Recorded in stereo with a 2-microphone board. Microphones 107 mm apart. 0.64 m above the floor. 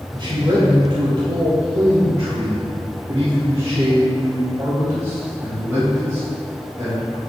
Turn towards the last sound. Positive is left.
turn(degrees=-20)  # may be behind; listen again after turning